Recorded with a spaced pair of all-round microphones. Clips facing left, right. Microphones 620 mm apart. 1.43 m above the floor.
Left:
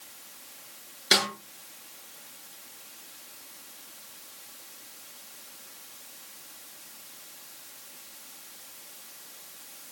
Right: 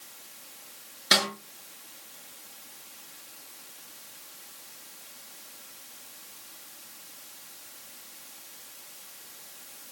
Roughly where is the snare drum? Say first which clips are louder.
Left 1 dB; centre.